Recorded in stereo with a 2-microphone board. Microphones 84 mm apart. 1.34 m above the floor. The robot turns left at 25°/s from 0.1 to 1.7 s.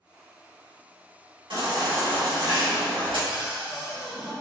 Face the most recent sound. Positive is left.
turn(degrees=-10)  # may be behind; listen again after turning